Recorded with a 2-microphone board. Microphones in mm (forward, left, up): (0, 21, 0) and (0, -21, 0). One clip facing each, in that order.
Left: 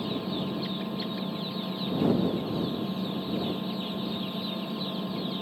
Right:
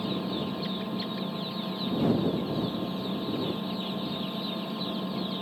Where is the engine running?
5° right (ahead or behind).